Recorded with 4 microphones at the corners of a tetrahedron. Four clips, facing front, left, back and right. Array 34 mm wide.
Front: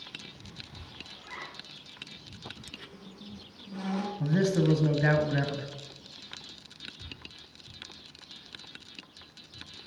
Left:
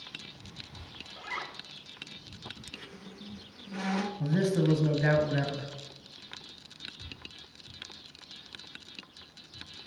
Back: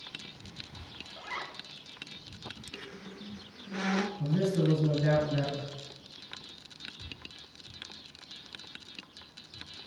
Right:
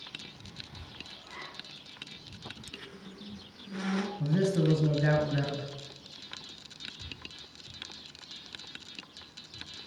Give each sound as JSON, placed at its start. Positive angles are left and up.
{"t": 1.2, "sound": "a zipper", "azimuth_deg": 135, "distance_m": 1.0}
{"t": 2.7, "sound": "a squeak", "azimuth_deg": 175, "distance_m": 0.7}
{"t": 4.2, "sound": "a man speaking", "azimuth_deg": 0, "distance_m": 1.3}